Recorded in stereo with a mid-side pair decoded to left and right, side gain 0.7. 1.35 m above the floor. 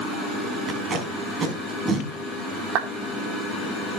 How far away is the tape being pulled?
About 5 m.